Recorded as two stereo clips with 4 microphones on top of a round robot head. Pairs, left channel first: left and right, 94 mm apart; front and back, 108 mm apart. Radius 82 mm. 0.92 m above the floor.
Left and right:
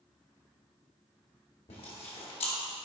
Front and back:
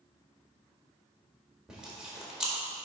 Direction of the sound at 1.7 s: 100° left.